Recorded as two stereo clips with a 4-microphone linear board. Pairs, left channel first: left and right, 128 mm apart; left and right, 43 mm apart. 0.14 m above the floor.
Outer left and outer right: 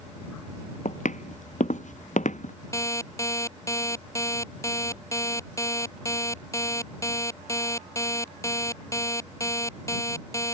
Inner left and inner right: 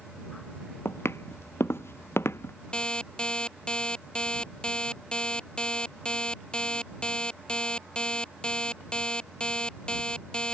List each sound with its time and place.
0.8 s footsteps: 75° left (ahead or behind)
2.7 s an alarm clock: 25° left (ahead or behind)